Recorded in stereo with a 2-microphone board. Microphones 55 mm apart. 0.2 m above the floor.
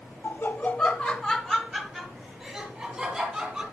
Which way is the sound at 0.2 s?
30° left (ahead or behind).